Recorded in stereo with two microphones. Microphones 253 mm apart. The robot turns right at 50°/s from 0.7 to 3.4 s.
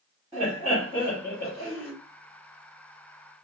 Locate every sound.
0.3 s laughter: 165° right, 1.6 m; by 1.9 s 105° right, 1.6 m